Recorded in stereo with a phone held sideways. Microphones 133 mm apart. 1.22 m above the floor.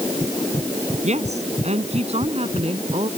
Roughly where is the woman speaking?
Right.